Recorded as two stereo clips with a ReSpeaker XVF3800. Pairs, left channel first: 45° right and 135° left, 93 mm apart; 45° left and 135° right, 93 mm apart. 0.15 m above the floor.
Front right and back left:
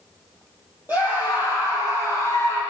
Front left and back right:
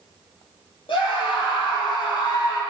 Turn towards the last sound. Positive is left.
turn(degrees=85)